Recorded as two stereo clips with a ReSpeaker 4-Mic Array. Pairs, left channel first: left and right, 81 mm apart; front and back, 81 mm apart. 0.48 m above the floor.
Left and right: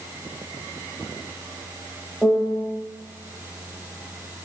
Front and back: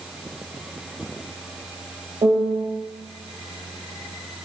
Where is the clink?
No clink in this recording.